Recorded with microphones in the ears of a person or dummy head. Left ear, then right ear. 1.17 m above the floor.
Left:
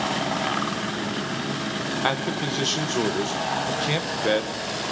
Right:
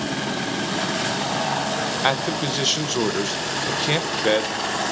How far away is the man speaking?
About 0.6 m.